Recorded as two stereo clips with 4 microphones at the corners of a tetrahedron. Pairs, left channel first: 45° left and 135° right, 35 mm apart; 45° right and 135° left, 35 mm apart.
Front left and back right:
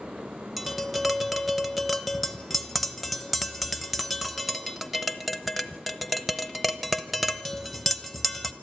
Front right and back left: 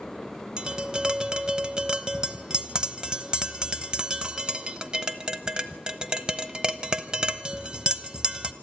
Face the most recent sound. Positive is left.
turn(degrees=135)